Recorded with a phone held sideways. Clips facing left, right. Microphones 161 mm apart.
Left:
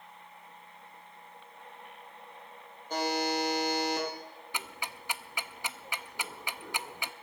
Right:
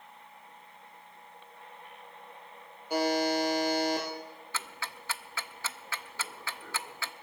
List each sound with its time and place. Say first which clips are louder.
2.9 s a buzzer: right 3 dB; 10° right (ahead or behind), 4 m
4.5 s ticking: left 1 dB; 15° left (ahead or behind), 0.5 m